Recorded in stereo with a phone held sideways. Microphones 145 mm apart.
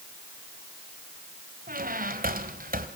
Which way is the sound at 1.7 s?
80° right.